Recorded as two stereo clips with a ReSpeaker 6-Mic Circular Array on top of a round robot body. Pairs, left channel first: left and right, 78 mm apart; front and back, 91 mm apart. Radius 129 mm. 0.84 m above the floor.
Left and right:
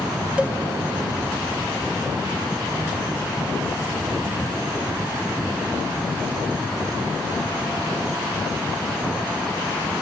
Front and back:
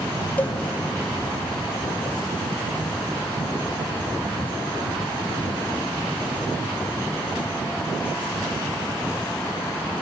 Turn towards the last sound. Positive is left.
turn(degrees=-40)